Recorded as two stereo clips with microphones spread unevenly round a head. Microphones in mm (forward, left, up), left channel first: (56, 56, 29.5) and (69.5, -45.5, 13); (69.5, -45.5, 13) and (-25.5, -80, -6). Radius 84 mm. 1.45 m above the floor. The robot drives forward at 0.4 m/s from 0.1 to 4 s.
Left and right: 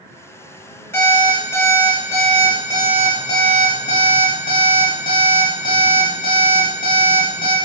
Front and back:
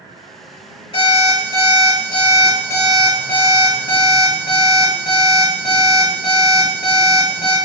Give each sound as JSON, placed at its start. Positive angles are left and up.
{"t": 0.9, "sound": "an alarm clock", "azimuth_deg": 35, "distance_m": 1.6}